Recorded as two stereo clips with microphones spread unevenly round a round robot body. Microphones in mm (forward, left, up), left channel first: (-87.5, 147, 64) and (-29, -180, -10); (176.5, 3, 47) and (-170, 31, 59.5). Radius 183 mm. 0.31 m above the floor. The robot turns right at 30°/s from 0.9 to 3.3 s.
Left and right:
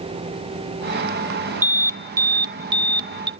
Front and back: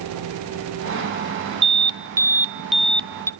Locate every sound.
1.6 s an alarm: 125° right, 0.6 m; by 3.3 s 75° right, 0.6 m